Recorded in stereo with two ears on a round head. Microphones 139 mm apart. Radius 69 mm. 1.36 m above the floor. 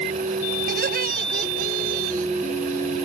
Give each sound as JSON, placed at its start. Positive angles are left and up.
{"t": 0.7, "sound": "laughter", "side_deg": -60}